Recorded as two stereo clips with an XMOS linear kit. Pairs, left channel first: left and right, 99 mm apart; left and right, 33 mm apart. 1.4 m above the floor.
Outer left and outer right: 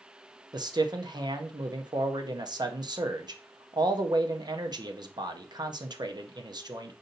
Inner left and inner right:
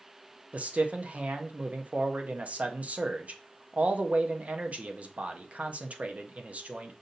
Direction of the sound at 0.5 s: 45° right (ahead or behind).